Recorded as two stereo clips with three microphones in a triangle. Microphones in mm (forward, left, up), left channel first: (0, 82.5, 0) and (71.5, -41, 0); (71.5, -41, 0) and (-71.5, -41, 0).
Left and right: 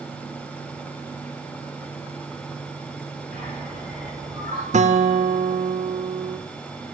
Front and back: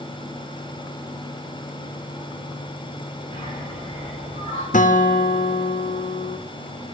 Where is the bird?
40° right, 8 m.